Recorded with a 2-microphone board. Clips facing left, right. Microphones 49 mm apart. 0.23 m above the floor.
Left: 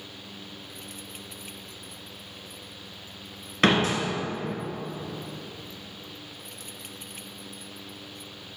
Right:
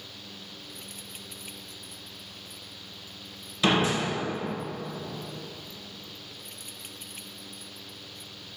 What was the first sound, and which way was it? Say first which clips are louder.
A door slam: left 2 dB; 55° left (ahead or behind).